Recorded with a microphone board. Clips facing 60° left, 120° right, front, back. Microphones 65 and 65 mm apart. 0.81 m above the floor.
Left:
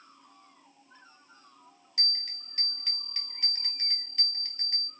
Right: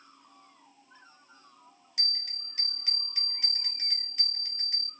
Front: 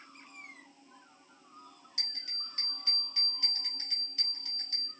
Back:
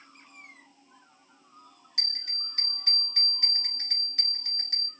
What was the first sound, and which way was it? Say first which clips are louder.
A bell: left 1 dB, back 6 dB; 160° left.